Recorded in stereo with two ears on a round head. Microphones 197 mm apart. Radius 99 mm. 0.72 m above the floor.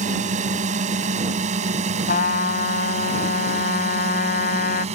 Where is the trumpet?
45° left (ahead or behind).